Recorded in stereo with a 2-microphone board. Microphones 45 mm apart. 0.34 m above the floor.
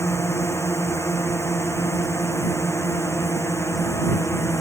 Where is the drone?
80° left.